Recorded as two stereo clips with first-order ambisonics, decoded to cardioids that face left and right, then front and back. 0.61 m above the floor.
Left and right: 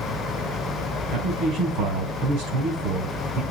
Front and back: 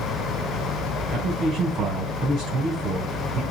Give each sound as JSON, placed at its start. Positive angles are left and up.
{"t": 1.1, "sound": "a man speaking", "azimuth_deg": -125, "distance_m": 4.0}